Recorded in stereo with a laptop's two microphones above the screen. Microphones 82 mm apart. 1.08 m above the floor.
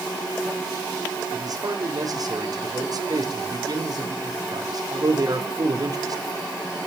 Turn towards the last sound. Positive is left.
turn(degrees=-50)  # may be behind; listen again after turning